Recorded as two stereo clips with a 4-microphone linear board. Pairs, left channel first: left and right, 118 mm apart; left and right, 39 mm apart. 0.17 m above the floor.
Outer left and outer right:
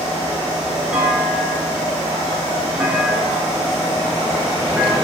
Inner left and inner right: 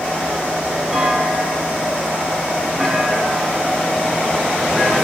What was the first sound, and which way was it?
A clunk, 10° right (ahead or behind).